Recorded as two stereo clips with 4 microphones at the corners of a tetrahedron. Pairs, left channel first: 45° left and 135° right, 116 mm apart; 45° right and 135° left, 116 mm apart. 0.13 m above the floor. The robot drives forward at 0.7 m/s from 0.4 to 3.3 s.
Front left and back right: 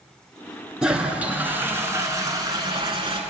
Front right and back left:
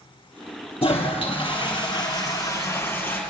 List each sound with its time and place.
0.8 s a toilet flushing: 50° right, 2 m; by 3.2 s 115° right, 1.8 m